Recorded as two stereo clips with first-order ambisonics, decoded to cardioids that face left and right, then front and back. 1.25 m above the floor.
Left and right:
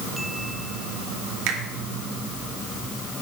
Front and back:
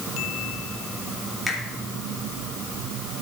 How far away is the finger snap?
About 2.5 m.